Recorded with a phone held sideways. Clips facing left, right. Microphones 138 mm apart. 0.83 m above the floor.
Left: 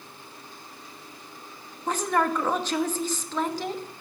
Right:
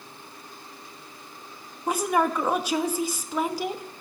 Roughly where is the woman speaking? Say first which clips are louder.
Right 1 dB; centre.